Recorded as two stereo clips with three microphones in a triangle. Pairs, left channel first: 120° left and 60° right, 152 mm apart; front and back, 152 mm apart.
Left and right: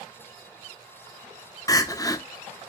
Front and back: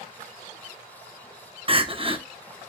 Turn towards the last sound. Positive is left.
turn(degrees=170)